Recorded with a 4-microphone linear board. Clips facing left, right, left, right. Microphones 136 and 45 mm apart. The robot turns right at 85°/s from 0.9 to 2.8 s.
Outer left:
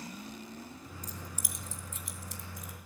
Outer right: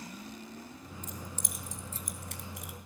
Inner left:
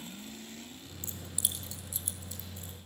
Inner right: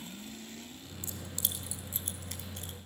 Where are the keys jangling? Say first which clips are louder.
Outer right 3 dB, even; 40° left (ahead or behind), 2.5 m; by 2.7 s 75° right (ahead or behind), 2.5 m.